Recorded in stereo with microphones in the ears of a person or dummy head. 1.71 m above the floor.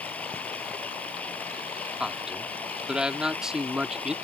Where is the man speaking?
Centre (ahead or behind).